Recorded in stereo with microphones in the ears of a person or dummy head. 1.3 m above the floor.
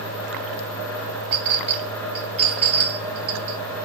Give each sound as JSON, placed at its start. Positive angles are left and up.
{"t": 1.3, "sound": "a clink", "side_deg": -35, "distance_m": 1.0}